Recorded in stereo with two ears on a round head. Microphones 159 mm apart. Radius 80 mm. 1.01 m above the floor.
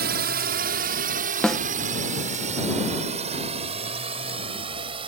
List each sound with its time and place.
0.0 s a drone: 55° right (ahead or behind); by 5.1 s 30° right (ahead or behind)
1.4 s a snare drum: 5° left (ahead or behind)